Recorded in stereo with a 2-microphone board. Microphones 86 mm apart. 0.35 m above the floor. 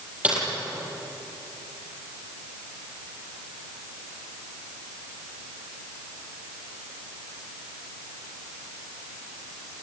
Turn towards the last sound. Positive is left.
turn(degrees=-15)  # may be behind; listen again after turning